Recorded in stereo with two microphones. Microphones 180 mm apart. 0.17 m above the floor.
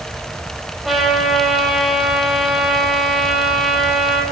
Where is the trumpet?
Centre (ahead or behind), 6.5 m.